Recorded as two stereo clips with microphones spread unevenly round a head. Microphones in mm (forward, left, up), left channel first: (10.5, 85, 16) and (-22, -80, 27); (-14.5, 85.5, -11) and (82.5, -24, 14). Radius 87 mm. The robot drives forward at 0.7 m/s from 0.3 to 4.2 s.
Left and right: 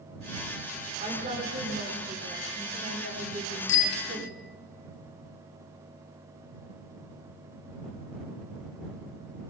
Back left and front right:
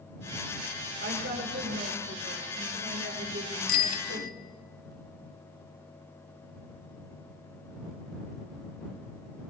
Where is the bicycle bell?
105° left, 2.5 m; by 4.3 s 110° left, 2.5 m.